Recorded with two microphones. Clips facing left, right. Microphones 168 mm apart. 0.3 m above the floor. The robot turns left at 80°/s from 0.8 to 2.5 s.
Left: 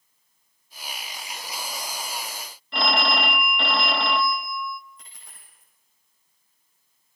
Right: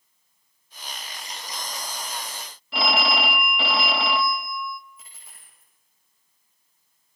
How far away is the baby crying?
I don't hear a baby crying.